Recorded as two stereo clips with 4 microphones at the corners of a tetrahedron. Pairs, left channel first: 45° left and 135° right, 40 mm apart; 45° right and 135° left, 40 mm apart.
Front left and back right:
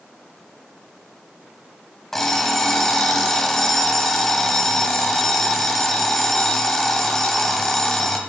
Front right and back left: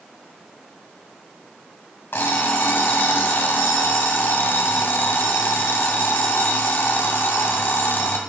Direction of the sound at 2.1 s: 35° right.